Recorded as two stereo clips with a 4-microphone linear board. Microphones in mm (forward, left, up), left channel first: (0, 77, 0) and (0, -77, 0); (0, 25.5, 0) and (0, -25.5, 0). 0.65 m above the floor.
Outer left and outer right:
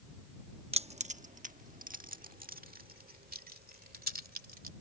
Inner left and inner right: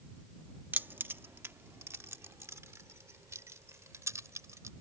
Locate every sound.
0.7 s keys jangling: 40° right (ahead or behind); by 4.7 s 80° right